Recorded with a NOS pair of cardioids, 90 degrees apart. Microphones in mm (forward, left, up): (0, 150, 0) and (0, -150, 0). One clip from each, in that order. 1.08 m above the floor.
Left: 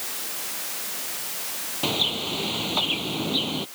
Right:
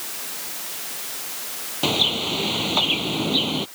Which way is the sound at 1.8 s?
30° right.